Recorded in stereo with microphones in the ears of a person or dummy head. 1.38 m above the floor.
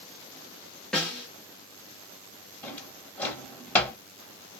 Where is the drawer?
10° left (ahead or behind), 0.9 m.